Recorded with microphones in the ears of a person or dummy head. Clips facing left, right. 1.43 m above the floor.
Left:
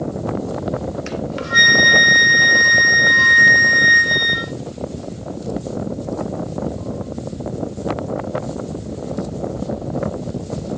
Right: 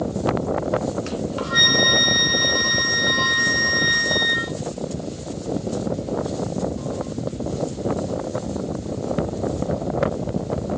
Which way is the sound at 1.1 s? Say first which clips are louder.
Left 1 dB; 25° left (ahead or behind).